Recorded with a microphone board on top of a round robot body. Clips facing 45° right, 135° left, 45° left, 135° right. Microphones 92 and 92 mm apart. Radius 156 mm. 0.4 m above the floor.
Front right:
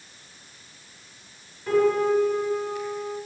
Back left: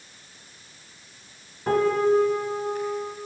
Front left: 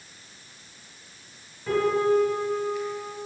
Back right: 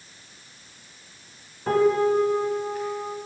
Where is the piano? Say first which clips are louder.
Even, back right 2 dB; straight behind, 2.5 m.